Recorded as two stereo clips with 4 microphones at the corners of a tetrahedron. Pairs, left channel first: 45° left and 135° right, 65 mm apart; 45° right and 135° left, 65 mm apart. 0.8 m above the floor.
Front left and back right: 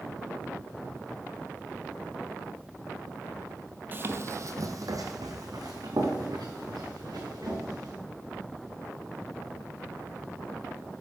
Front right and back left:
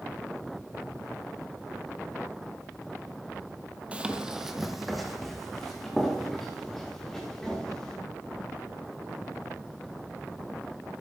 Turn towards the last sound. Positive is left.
turn(degrees=-125)